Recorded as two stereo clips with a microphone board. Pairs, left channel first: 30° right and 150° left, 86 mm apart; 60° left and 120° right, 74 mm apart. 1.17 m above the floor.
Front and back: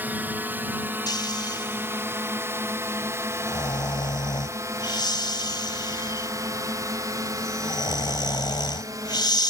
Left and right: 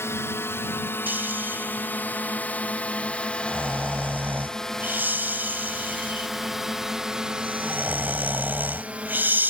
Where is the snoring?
55° right.